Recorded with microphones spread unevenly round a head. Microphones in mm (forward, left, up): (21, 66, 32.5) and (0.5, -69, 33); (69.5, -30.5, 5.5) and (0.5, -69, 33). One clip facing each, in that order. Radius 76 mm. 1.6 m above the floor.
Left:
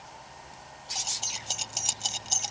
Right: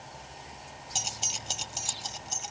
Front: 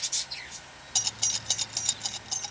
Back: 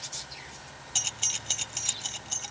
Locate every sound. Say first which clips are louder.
0.9 s keys jangling: right 1 dB, front 1 dB; 70° right; by 2.5 s 130° left